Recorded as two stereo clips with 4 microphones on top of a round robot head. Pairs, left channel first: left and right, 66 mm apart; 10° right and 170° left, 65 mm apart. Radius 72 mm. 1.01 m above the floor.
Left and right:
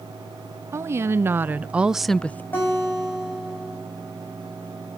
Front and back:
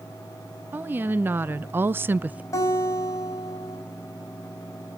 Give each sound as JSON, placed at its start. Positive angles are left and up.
{"t": 0.7, "sound": "a woman speaking", "azimuth_deg": -130, "distance_m": 1.4}
{"t": 2.5, "sound": "a guitar", "azimuth_deg": 25, "distance_m": 5.5}